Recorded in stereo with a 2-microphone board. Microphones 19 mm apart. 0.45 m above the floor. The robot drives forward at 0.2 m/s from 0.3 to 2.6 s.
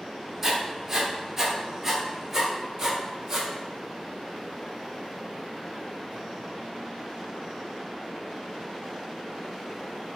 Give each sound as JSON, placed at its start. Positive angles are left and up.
{"t": 0.4, "sound": "writing", "side_deg": -15, "distance_m": 0.7}